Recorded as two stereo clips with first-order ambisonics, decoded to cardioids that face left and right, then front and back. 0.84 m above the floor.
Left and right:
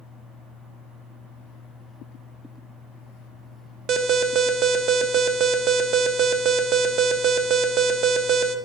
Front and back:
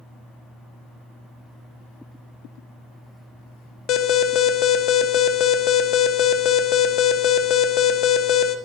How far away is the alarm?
About 0.6 m.